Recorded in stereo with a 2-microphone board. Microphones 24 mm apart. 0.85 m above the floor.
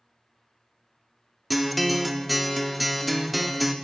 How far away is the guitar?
About 0.6 m.